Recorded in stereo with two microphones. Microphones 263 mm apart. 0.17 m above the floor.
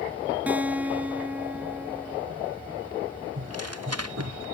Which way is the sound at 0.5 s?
5° right (ahead or behind).